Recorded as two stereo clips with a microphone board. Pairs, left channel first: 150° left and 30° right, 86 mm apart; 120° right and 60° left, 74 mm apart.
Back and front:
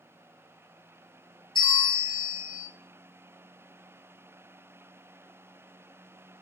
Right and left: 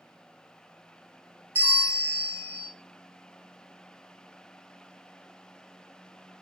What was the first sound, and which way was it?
A bell, 125° left.